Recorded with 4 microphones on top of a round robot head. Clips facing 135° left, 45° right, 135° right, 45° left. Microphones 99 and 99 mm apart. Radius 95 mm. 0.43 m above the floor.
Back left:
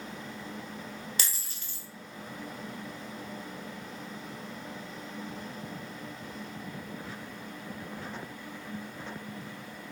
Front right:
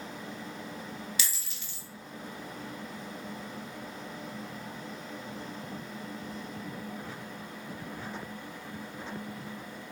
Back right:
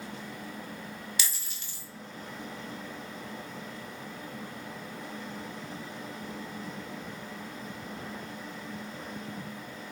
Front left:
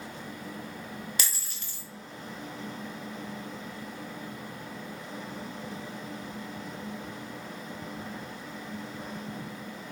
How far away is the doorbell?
I don't hear a doorbell.